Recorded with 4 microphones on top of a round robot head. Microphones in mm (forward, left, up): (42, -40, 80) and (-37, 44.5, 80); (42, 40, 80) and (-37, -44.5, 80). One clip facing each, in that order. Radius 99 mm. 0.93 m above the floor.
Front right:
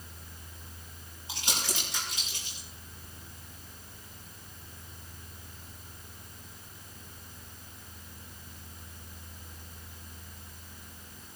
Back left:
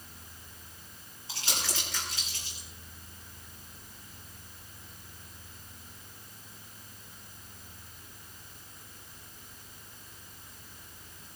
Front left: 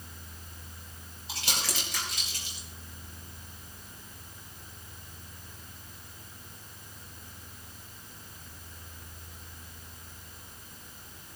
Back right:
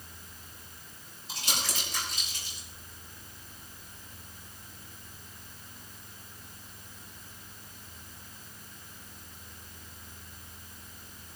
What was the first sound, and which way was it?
Crumpling, 25° left.